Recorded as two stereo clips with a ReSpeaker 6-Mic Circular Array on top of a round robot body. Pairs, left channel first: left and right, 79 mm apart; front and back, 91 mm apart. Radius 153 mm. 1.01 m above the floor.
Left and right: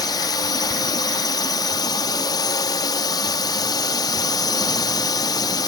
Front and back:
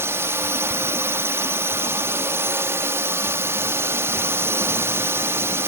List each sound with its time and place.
0.0 s a drone: 120° left